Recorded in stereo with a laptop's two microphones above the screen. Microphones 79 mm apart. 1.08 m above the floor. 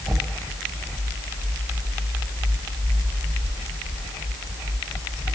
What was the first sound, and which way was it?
Only background noise.